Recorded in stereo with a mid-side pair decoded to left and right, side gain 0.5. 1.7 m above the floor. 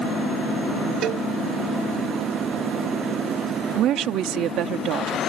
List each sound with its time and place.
1.0 s a cowbell: 65° right
3.8 s a woman speaking: 70° right